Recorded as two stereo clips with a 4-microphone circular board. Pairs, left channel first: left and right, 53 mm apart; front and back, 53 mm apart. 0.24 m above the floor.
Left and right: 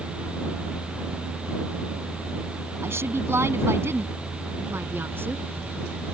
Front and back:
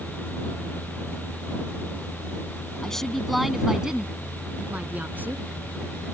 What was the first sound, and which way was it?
A woman speaking, 75° right.